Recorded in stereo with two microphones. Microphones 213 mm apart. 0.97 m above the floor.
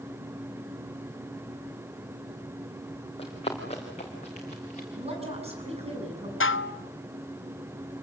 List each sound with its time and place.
3.2 s running footsteps: 30° left (ahead or behind), 5 m; by 4.8 s 35° left (ahead or behind), 6.5 m
5.0 s a woman speaking: 30° right (ahead or behind), 7 m
6.4 s dishes clattering: 80° left, 0.6 m